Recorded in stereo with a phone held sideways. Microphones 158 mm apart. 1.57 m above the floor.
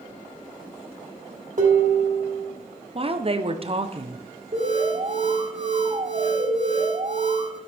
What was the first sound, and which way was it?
Dishes clattering, 55° right (ahead or behind).